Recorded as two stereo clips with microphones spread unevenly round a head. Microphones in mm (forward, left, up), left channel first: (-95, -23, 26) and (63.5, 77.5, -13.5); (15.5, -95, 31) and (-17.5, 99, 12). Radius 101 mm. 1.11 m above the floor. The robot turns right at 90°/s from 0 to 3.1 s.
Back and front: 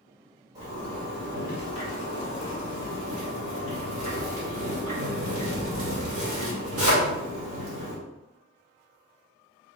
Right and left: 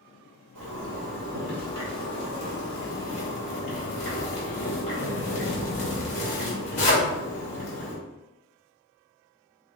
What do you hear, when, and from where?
0.6 s a zipper: 105° left, 2 m; by 8.0 s 25° right, 2 m